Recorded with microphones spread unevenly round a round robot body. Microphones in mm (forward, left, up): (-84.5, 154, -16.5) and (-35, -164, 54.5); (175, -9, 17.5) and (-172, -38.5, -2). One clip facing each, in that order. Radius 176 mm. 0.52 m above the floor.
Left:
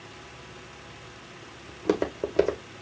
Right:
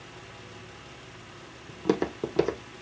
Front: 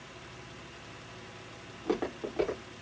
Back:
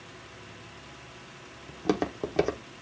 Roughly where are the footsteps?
Behind right.